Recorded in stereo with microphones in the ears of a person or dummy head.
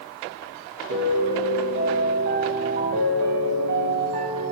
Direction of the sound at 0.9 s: 60° right (ahead or behind).